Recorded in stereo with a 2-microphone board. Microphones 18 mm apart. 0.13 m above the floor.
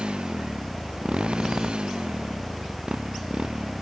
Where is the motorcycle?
70° right (ahead or behind).